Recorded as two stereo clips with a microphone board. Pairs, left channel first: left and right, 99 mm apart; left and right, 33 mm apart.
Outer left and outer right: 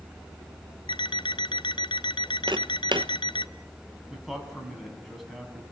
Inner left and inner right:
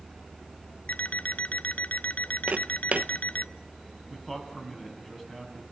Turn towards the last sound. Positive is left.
turn(degrees=0)  # may be behind; listen again after turning